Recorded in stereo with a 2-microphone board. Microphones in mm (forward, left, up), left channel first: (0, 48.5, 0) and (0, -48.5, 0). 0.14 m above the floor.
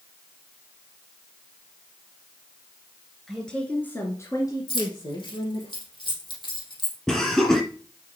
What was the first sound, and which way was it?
A woman speaking, centre (ahead or behind).